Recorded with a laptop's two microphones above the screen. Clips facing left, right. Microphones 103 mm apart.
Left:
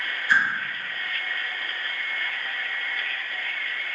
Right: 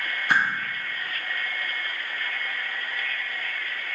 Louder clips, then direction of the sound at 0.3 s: Left 1 dB; 60° right (ahead or behind).